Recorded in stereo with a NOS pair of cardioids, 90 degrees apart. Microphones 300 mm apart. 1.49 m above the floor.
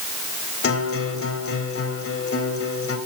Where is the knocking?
I don't hear knocking.